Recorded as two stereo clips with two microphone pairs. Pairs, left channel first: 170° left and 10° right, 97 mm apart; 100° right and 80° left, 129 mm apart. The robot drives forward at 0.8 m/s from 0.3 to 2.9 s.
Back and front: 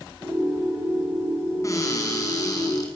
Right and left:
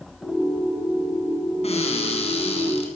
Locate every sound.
1.6 s a cupboard door: 130° right, 7 m; by 2.9 s 140° right, 8 m